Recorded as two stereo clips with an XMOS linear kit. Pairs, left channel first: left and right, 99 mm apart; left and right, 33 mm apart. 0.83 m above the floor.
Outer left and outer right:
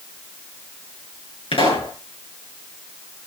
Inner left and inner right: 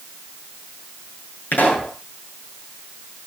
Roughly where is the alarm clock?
No alarm clock in this recording.